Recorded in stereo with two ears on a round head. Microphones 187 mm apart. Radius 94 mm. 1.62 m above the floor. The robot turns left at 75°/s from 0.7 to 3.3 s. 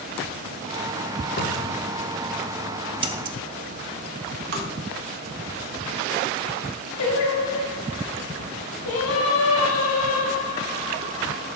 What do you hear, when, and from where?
1.4 s a cupboard door: 55° left, 1.2 m; by 1.9 s 15° left, 1.2 m
3.0 s scissors: 25° right (ahead or behind), 0.5 m; by 3.4 s 45° right (ahead or behind), 0.5 m
4.5 s tapping: 55° right (ahead or behind), 1.6 m
7.0 s singing: 75° left (ahead or behind), 1.9 m